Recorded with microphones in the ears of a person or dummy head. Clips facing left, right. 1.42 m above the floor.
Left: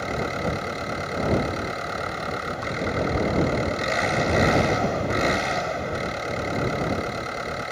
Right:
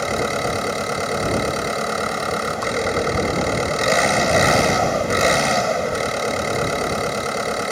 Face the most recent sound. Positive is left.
turn(degrees=-65)  # may be behind; listen again after turning